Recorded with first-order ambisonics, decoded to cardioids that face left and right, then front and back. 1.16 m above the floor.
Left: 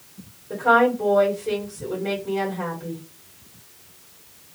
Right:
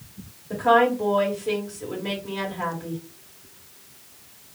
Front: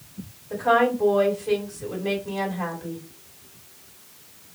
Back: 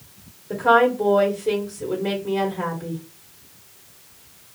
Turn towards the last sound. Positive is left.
turn(degrees=180)